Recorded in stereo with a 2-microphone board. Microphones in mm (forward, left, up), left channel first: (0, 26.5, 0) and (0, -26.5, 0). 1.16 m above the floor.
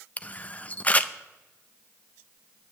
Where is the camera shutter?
25° left (ahead or behind), 0.5 m.